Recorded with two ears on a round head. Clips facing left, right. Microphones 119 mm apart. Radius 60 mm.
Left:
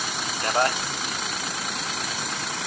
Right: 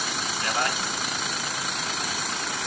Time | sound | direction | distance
0.4 | a man speaking | 35° left (ahead or behind) | 0.9 m